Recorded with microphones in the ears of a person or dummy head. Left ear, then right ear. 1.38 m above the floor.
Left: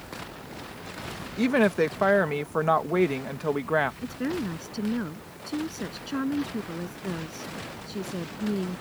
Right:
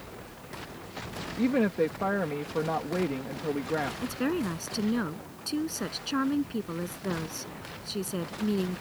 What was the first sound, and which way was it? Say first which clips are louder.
A woman speaking: left 4 dB; 45° left (ahead or behind).